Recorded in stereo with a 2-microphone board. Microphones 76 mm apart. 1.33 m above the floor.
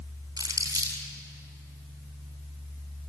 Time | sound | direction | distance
0.4 | crumpling | 60° right (ahead or behind) | 3.5 m